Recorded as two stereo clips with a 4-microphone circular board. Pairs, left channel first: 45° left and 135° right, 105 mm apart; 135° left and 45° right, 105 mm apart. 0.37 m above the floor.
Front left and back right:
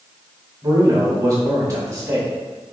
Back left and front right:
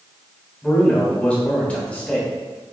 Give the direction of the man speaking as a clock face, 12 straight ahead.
5 o'clock.